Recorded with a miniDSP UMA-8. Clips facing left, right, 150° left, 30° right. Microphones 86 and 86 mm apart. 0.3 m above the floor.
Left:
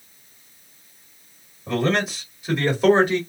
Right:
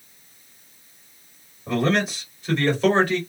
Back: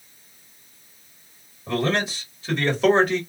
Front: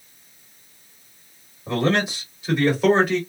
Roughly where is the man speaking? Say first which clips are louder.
Even, front 2 dB; ahead.